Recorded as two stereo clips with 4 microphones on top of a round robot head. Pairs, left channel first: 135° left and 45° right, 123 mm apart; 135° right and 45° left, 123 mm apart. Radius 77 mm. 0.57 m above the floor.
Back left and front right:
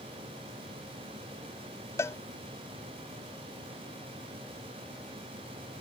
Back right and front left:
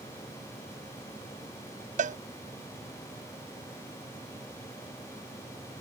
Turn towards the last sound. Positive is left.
turn(degrees=65)